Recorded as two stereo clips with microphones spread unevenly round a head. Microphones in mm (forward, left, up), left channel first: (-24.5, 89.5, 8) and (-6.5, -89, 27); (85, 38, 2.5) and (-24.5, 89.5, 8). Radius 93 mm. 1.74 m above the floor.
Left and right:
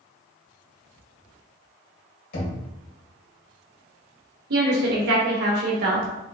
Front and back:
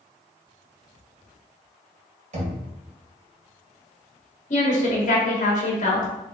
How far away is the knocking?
About 1.9 m.